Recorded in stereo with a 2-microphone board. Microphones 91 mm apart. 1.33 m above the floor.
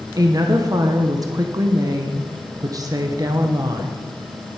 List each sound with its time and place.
0.2 s a woman speaking: 40° right (ahead or behind), 0.9 m